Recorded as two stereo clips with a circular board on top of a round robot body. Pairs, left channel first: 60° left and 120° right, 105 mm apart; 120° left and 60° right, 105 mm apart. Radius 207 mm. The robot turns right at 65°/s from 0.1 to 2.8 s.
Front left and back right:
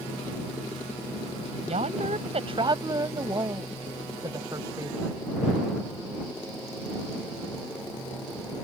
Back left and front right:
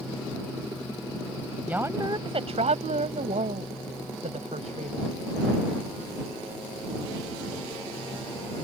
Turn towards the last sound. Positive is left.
turn(degrees=-65)